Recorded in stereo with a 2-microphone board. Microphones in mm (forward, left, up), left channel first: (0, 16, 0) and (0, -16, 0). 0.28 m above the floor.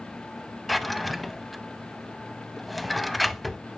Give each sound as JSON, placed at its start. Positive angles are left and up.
{"t": 0.7, "sound": "a drawer", "side_deg": 0, "distance_m": 0.5}